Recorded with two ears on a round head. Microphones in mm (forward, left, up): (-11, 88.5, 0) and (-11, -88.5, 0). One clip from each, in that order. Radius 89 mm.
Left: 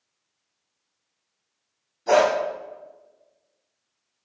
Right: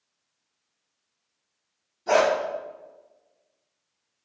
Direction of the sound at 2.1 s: 15° left (ahead or behind).